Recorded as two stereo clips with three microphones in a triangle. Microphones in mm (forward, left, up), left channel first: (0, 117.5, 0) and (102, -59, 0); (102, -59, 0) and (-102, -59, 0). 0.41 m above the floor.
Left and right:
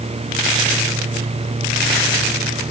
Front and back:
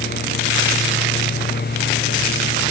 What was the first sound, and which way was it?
Only background noise.